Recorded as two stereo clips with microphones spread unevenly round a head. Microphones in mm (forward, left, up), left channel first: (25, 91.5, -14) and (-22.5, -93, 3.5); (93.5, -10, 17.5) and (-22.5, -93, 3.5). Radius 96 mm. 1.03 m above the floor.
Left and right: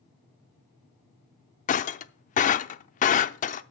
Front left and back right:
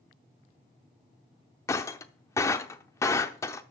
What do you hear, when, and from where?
1.7 s breaking glass: 80° left, 0.6 m